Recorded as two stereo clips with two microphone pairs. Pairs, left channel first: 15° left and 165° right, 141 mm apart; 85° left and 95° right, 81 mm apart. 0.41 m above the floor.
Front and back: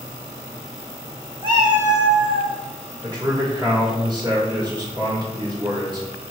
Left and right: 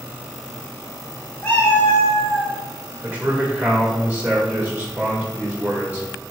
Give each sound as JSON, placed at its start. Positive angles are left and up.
{"t": 1.4, "sound": "a cat meowing", "azimuth_deg": 150, "distance_m": 1.7}
{"t": 3.0, "sound": "a man speaking", "azimuth_deg": -155, "distance_m": 1.4}